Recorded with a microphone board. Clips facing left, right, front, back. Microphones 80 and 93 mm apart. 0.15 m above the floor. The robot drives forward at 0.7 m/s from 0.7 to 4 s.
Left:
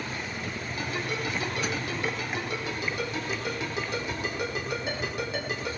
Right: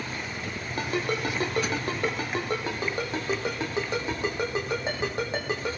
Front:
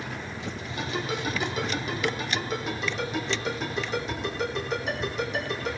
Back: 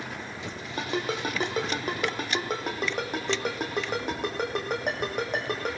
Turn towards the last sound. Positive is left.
turn(degrees=-145)